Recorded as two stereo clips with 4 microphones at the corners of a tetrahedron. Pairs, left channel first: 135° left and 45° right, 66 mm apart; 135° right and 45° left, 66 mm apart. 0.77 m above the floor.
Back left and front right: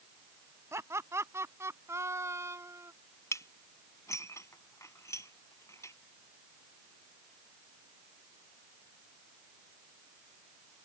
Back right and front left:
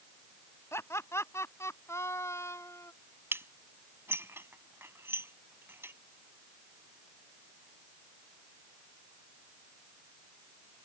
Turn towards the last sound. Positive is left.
turn(degrees=100)